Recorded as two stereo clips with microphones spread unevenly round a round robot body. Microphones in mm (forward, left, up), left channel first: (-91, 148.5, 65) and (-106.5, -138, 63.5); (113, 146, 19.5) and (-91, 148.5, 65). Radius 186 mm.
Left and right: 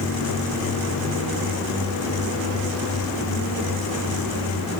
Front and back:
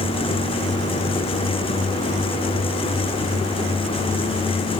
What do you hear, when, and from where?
Only background noise.